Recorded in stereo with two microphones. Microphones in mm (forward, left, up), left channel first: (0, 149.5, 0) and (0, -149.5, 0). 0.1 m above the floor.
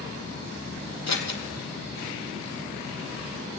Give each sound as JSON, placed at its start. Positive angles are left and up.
{"t": 1.1, "sound": "scissors", "side_deg": 65, "distance_m": 1.4}